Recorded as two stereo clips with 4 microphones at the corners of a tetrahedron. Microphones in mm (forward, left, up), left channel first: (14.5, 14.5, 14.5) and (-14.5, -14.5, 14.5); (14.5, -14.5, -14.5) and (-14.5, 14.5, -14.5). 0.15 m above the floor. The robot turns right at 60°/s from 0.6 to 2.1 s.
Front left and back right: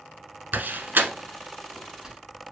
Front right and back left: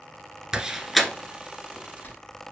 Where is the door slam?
155° right, 1.1 m; by 2.2 s 65° right, 1.1 m.